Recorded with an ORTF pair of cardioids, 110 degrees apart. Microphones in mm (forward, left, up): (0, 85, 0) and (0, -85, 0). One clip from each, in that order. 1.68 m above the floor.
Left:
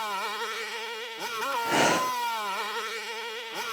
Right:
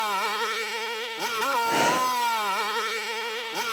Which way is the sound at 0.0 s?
35° right.